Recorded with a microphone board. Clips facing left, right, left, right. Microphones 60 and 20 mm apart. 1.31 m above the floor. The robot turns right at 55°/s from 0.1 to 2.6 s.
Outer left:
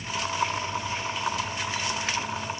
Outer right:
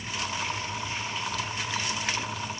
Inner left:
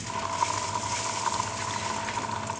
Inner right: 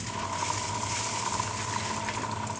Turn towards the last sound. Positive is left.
No sound to turn to.